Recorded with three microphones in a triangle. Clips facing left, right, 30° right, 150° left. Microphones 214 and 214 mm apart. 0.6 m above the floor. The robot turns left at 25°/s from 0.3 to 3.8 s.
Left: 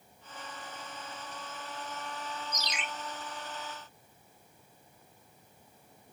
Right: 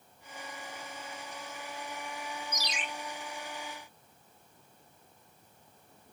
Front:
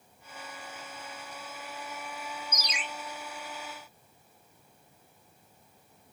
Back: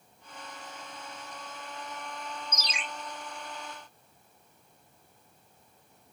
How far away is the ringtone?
About 0.6 m.